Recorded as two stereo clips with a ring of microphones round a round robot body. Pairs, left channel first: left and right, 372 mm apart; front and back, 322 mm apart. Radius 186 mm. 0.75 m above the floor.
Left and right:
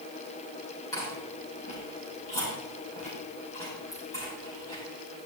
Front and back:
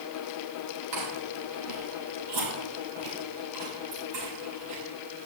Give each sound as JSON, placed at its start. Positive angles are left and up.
{"t": 0.9, "sound": "chewing", "azimuth_deg": 170, "distance_m": 5.0}